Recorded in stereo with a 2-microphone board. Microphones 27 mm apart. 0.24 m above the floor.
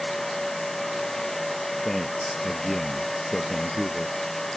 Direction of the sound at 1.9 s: 15° left (ahead or behind).